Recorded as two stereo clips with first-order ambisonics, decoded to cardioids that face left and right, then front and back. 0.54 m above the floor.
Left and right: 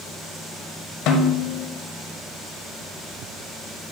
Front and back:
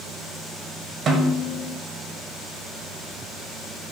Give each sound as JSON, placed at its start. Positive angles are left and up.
{"t": 1.1, "sound": "a snare drum", "azimuth_deg": 125, "distance_m": 1.4}